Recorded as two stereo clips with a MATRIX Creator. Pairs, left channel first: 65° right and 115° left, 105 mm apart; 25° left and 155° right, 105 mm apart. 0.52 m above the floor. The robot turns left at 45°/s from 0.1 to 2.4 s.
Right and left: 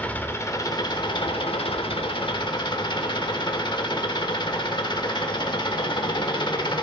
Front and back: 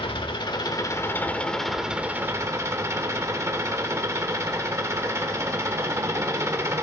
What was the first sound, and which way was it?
An engine running, 5° left.